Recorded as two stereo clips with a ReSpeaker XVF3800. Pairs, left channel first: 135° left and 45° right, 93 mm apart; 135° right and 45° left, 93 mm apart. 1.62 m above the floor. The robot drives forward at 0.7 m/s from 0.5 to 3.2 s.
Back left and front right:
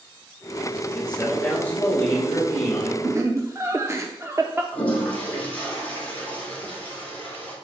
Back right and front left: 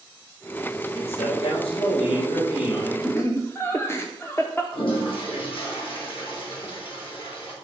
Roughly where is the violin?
I don't hear a violin.